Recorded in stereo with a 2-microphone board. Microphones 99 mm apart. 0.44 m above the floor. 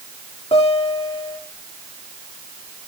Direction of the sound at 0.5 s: 80° left.